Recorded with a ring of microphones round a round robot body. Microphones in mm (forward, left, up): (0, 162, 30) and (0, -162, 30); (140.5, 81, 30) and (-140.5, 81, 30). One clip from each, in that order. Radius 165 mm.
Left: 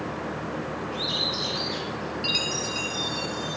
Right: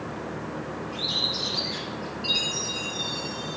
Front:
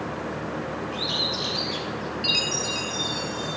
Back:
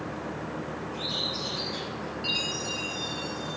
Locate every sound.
0.9 s a bird: 20° left, 4 m
2.2 s a chime: 35° left, 1.8 m